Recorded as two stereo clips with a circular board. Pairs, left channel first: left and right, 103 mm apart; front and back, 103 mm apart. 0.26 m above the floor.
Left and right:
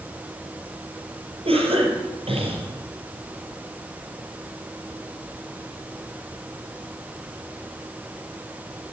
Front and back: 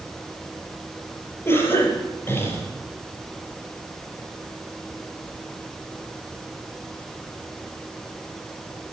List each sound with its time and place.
1.4 s a cough: 70° right, 5 m